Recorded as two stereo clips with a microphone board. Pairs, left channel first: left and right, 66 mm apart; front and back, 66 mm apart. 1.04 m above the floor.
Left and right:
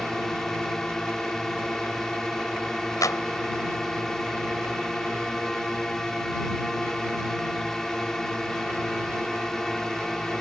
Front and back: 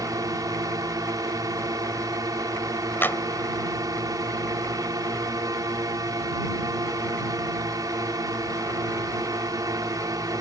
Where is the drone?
170° left.